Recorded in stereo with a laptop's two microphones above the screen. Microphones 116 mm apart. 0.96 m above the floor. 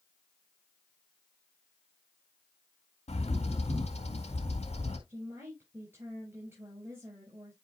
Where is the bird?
70° left (ahead or behind), 2 m.